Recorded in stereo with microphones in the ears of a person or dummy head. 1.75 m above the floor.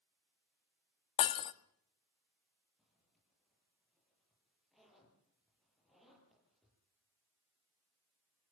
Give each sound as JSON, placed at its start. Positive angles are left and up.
{"t": 1.2, "sound": "breaking glass", "side_deg": 35, "distance_m": 1.6}
{"t": 2.8, "sound": "a zipper", "side_deg": 5, "distance_m": 9.0}